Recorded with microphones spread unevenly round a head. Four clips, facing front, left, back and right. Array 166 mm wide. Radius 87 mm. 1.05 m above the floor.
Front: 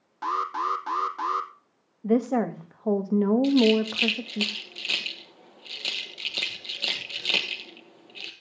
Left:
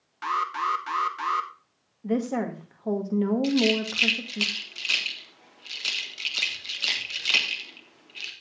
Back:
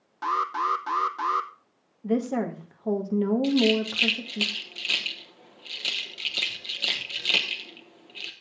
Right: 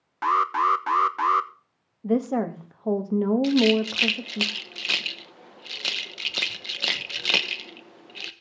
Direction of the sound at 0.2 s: 70° right.